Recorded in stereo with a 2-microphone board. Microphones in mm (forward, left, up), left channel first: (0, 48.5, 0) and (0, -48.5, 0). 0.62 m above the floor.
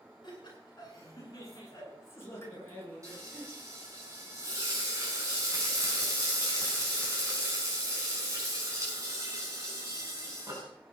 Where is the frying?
35° right (ahead or behind), 6 m.